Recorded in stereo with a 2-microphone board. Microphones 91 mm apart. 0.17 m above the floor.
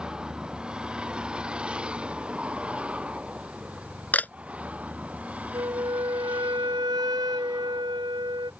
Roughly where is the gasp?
No gasp in this recording.